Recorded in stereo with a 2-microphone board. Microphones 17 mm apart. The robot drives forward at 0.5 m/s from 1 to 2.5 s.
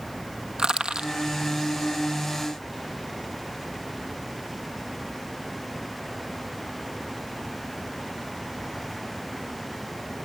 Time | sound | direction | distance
0.6 | crushing | 70° right (ahead or behind) | 1.3 m